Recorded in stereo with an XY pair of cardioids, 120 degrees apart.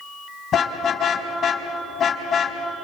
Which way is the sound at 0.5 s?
50° left.